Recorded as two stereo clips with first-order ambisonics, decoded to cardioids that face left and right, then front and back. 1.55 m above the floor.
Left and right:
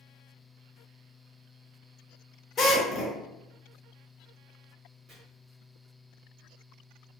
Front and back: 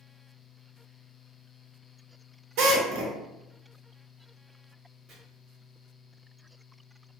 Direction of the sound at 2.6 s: 165° left.